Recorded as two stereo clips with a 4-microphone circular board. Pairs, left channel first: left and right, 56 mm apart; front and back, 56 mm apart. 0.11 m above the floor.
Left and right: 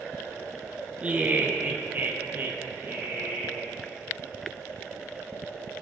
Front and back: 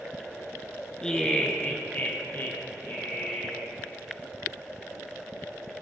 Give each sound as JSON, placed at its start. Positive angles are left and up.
{"t": 1.0, "sound": "laughter", "azimuth_deg": -65, "distance_m": 1.5}